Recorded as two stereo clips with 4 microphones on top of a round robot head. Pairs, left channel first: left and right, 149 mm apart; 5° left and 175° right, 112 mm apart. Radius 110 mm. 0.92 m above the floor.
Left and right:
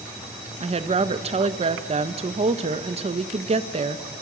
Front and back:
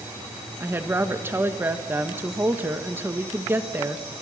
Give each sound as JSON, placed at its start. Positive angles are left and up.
{"t": 0.6, "sound": "a woman speaking", "azimuth_deg": -110, "distance_m": 1.3}